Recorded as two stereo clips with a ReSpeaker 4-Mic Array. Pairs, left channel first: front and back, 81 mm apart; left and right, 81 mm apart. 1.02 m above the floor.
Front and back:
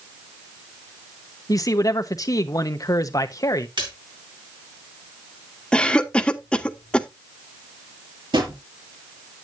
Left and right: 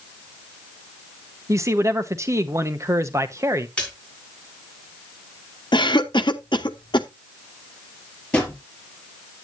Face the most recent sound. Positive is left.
turn(degrees=165)